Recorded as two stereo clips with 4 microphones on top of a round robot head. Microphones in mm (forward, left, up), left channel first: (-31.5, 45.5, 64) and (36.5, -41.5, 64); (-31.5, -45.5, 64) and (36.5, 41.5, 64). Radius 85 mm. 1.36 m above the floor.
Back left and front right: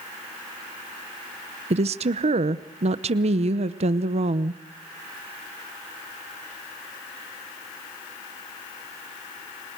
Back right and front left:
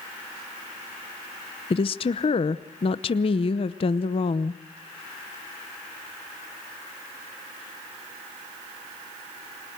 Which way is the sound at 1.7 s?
85° right.